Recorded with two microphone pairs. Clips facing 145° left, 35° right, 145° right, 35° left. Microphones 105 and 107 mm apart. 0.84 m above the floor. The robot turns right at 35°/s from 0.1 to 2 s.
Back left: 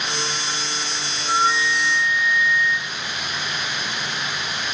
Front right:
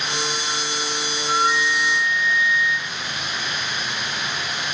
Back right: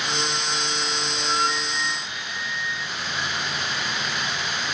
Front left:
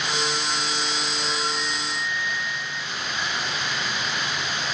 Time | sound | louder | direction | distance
1.2 | a flute | back left 1 dB, back right 3 dB | 150° right | 4.5 m